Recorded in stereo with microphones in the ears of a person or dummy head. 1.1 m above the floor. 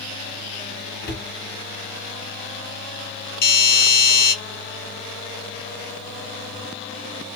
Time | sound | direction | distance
1.0 | a cupboard door | 40° left (ahead or behind) | 1.6 m
3.4 | a doorbell | 45° left (ahead or behind) | 1.3 m